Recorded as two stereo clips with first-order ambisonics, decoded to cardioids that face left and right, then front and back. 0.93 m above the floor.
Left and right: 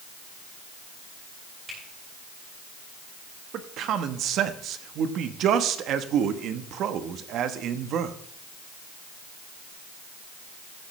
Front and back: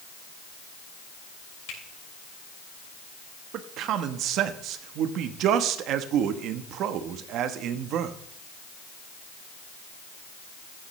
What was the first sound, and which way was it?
A finger snap, 10° right.